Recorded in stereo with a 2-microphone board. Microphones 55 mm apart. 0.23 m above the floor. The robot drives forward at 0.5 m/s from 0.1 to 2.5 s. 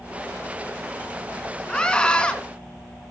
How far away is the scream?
About 2.5 m.